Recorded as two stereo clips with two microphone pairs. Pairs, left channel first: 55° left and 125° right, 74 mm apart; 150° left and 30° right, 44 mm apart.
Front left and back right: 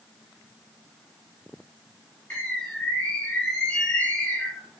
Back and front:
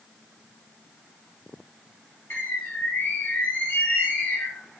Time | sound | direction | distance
2.3 | a bird | 125° left | 2.0 m